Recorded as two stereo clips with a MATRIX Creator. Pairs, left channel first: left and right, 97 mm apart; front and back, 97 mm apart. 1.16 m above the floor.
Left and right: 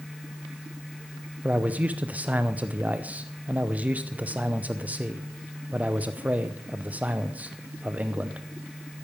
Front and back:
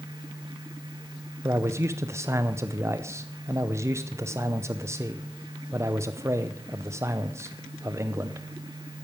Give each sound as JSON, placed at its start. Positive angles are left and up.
{"t": 1.4, "sound": "a man speaking", "azimuth_deg": -150, "distance_m": 0.6}